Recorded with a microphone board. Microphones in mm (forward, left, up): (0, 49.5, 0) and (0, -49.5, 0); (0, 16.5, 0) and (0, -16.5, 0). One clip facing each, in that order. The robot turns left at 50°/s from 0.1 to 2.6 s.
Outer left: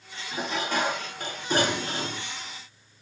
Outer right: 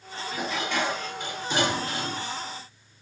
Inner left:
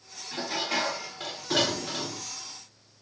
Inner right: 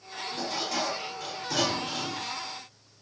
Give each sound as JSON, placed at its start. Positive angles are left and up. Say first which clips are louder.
{"t": 0.3, "sound": "dishes clattering", "louder": "outer left 1 dB, inner left 2 dB", "azimuth_deg": 140, "distance_m": 1.3}